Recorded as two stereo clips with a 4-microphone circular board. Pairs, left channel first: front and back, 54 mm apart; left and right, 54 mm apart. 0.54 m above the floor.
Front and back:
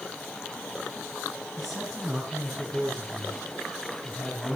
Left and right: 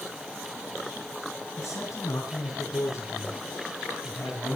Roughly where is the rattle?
No rattle in this recording.